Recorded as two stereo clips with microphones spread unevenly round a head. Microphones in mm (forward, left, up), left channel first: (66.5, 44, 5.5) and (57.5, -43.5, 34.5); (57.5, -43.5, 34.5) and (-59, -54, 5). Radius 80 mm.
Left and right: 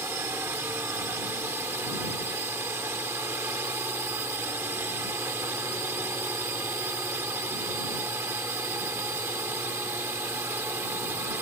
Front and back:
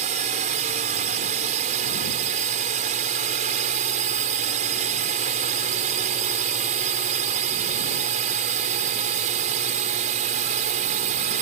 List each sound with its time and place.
0.0 s a drone: 170° right